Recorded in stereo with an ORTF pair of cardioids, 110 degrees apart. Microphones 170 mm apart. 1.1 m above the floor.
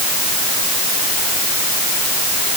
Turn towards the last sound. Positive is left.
No sound to turn to.